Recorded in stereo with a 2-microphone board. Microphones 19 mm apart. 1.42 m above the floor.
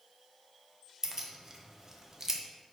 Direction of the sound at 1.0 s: 25° right (ahead or behind).